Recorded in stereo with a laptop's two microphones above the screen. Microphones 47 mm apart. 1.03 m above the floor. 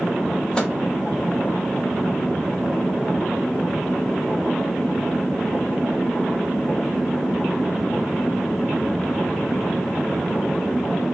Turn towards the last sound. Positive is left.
turn(degrees=20)  # may be behind; listen again after turning